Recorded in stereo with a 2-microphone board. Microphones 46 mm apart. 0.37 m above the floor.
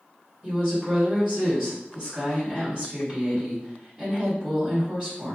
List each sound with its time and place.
0.4 s a woman speaking: 25° right (ahead or behind), 1.6 m